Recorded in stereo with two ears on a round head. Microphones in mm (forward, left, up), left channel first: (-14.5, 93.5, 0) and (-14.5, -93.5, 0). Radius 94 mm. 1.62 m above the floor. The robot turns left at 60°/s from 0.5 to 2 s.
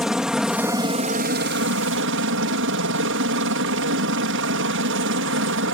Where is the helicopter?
5° right; by 5.8 s 95° right.